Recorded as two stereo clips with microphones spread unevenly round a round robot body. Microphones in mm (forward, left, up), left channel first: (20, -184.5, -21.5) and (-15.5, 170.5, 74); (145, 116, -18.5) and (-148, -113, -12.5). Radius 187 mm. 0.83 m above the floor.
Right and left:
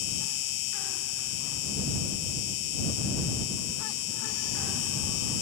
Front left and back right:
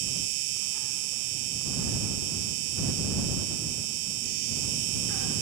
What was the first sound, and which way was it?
An insect, 115° right.